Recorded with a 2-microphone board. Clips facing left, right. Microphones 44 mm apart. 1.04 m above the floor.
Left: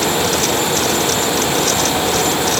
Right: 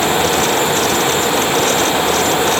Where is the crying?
No crying in this recording.